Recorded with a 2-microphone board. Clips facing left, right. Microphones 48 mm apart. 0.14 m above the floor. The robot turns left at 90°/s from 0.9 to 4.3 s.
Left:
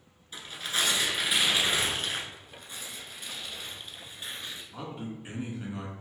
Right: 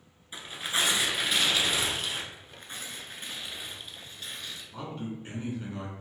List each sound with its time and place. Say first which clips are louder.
0.3 s tearing paper: right 1 dB; 155° right, 0.9 m; by 2.2 s 85° left, 0.9 m
2.3 s tearing paper: right 1 dB; 35° right, 0.8 m; by 4.6 s 145° left, 0.8 m
4.7 s a man speaking: right 3 dB; 15° left (ahead or behind), 1.2 m